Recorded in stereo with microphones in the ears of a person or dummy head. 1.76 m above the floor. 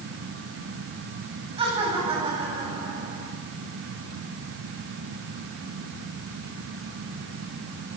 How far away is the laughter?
About 8.5 m.